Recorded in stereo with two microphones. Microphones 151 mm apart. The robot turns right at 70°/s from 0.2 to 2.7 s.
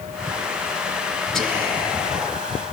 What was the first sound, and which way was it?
Whispering, 175° left.